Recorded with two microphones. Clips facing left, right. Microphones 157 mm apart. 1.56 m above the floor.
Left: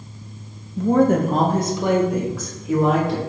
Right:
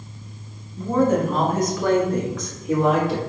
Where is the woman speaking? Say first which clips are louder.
Left 3 dB; 75° left (ahead or behind), 0.8 m; by 3.2 s 5° right (ahead or behind), 2 m.